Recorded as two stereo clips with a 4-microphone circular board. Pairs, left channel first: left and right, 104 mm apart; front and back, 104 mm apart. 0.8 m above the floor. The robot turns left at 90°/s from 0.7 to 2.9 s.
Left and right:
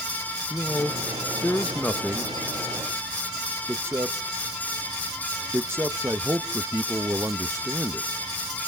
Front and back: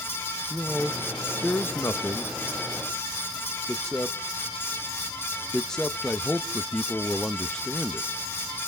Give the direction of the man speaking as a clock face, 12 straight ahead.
8 o'clock.